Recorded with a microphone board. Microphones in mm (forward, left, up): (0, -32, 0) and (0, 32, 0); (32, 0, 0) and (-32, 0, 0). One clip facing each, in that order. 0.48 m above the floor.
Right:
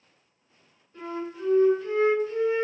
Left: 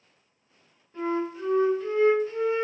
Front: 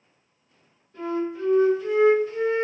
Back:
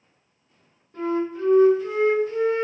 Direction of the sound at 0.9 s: 140° left.